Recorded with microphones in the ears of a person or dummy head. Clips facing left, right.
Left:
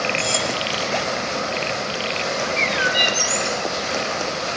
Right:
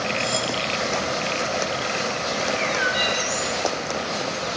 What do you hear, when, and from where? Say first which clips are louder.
0.2 s cutlery clinking: left 1 dB; 40° left (ahead or behind), 1.3 m
2.4 s a bird: left 1 dB; 35° left (ahead or behind), 1.9 m